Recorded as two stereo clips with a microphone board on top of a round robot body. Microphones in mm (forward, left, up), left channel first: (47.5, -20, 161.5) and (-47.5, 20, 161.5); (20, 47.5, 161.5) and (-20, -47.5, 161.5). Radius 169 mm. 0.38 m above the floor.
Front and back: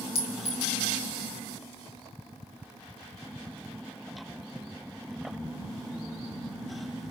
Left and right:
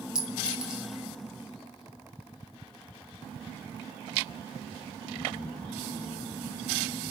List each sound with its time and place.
0.1 s a clink: 30° right, 2 m